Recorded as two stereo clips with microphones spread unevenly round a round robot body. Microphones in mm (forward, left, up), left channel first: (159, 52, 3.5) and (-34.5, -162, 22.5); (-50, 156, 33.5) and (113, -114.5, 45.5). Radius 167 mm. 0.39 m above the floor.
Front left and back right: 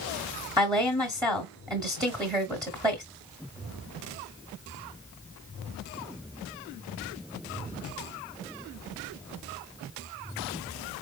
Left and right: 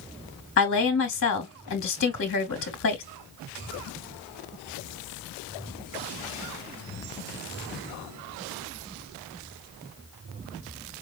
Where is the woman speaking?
150° left, 1.2 m.